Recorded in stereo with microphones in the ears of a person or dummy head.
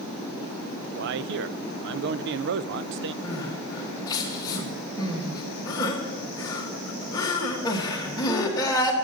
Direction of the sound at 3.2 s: 25° left (ahead or behind).